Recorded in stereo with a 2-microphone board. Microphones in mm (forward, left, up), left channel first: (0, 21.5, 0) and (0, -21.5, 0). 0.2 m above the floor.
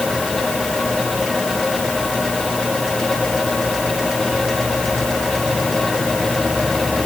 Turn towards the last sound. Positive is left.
No sound to turn to.